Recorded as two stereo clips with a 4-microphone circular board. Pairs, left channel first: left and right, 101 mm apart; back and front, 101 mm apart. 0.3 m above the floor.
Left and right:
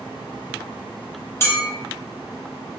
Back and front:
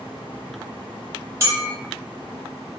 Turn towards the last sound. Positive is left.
turn(degrees=45)